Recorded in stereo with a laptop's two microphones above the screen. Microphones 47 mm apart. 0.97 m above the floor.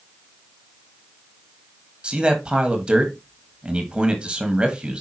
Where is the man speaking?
25° right (ahead or behind), 1.5 m.